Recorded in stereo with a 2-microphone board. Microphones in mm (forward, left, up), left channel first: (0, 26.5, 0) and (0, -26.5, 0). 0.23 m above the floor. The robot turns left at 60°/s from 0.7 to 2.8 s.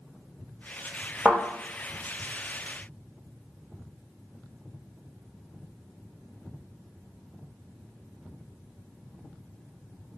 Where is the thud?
20° right (ahead or behind), 1.3 m; by 1.4 s 15° right (ahead or behind), 1.3 m.